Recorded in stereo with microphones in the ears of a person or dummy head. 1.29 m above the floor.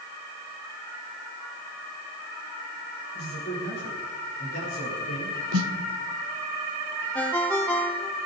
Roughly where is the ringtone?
Centre.